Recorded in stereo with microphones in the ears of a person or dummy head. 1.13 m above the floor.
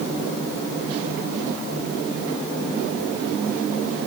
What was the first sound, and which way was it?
Only background noise.